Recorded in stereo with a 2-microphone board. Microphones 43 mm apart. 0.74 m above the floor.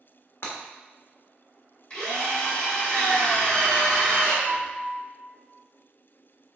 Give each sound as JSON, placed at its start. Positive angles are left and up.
{"t": 0.4, "sound": "breaking glass", "side_deg": 70, "distance_m": 0.9}
{"t": 1.9, "sound": "a drill", "side_deg": 25, "distance_m": 1.7}
{"t": 4.5, "sound": "a piano", "side_deg": 60, "distance_m": 1.2}